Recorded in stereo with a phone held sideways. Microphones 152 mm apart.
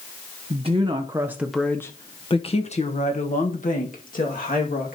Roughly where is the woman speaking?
Right.